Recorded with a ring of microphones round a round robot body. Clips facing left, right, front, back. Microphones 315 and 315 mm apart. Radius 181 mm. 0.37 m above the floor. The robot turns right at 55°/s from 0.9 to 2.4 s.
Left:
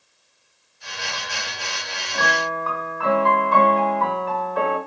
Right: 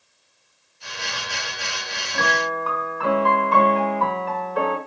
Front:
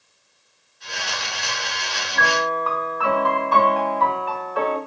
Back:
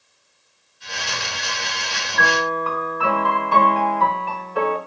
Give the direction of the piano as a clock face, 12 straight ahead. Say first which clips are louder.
Right 1 dB, back 2 dB; 5 o'clock.